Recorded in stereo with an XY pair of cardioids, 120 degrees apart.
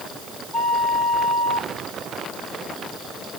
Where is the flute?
10° left, 2.5 m.